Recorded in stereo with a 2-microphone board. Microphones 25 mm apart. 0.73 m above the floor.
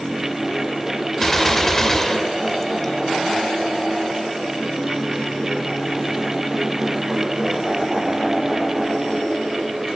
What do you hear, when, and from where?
1.2 s a gunshot: 15° left (ahead or behind), 1.4 m